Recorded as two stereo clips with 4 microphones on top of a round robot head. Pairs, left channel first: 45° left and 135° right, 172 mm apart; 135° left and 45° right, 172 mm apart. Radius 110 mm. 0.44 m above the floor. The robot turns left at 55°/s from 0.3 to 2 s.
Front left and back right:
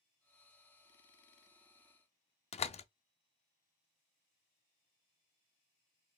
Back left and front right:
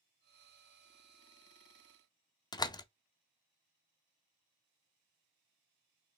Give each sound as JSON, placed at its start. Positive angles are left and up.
{"t": 2.5, "sound": "a door slam", "azimuth_deg": 75, "distance_m": 0.5}